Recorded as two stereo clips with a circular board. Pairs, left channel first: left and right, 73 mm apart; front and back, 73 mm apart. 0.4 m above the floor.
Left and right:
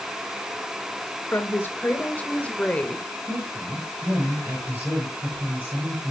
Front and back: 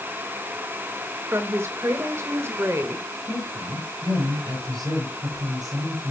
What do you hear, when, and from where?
1.3 s a woman speaking: 140° left, 2 m; by 3.1 s 165° left, 1.5 m
3.3 s a woman speaking: 155° right, 9 m